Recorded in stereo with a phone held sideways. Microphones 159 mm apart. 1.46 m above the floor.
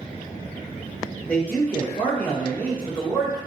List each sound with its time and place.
1.3 s a man speaking: 10° left (ahead or behind), 1.2 m